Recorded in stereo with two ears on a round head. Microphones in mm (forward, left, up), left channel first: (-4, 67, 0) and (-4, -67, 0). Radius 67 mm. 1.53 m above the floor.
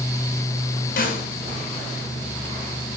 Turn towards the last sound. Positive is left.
turn(degrees=60)  # may be behind; listen again after turning